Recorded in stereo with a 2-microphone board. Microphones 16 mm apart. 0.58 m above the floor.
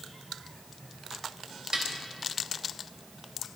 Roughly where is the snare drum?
Right.